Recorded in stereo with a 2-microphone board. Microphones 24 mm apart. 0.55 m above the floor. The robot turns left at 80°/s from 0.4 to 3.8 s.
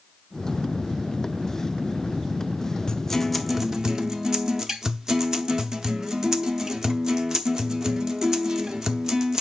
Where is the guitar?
40° left, 0.7 m; by 9.4 s 35° right, 0.7 m.